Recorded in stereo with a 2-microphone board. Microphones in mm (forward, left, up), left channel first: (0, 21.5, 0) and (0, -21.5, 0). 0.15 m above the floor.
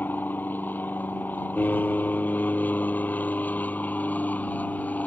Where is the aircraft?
45° left (ahead or behind); by 5.1 s 40° left (ahead or behind).